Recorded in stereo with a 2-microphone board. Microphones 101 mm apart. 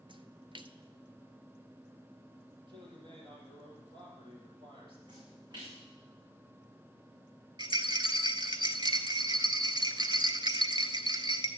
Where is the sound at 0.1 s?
60° right (ahead or behind), 0.6 m.